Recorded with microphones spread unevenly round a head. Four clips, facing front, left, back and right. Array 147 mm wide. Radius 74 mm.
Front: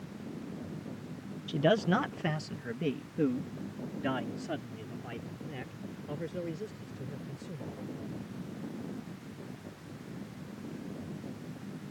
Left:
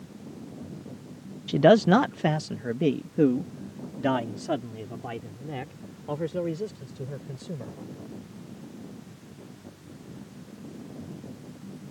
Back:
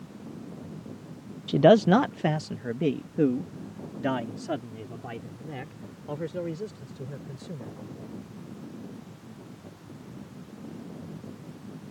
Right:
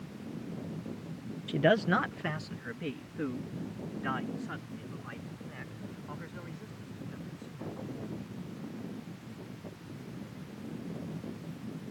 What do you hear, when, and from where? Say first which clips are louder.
1.5 s a man speaking: left 9 dB, back 10 dB; 155° left; by 7.8 s 110° left